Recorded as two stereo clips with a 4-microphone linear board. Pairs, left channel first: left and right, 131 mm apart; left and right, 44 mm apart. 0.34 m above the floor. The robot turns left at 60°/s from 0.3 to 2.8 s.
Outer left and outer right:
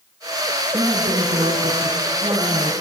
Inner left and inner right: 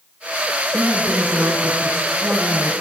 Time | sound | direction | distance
0.7 | a woman speaking | 35° right | 3 m